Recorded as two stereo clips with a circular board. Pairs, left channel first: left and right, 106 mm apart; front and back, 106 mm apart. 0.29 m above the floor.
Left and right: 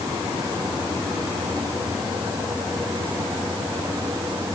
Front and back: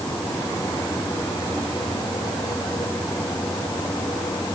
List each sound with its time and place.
Only background noise.